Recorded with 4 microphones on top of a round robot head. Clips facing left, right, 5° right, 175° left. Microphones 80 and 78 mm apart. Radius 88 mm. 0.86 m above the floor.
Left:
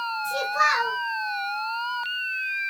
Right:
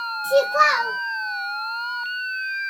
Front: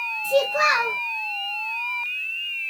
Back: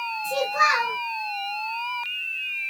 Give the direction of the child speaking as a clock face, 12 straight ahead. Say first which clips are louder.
Right 7 dB, front 2 dB; 3 o'clock.